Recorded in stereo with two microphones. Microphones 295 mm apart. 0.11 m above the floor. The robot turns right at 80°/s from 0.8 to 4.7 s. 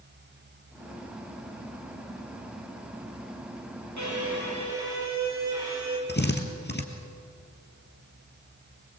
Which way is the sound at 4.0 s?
70° right.